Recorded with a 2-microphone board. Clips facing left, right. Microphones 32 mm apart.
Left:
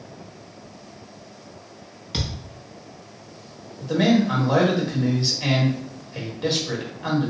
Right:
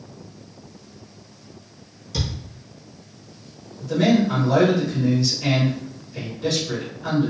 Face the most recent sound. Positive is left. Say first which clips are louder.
# right 1 dB
turn(degrees=35)  # may be behind; listen again after turning